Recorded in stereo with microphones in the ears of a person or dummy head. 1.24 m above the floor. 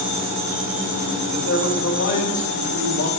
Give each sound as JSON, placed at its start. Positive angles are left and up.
{"t": 1.3, "sound": "a man speaking", "side_deg": 55, "distance_m": 4.0}